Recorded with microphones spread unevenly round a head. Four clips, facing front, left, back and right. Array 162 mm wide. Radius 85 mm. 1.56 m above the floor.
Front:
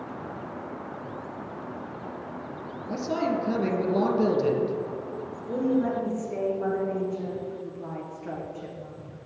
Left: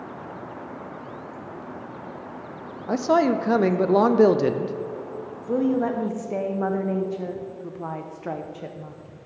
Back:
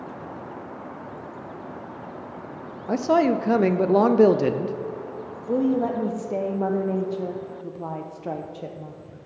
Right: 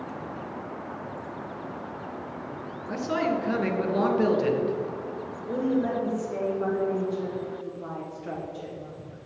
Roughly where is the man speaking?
Behind left.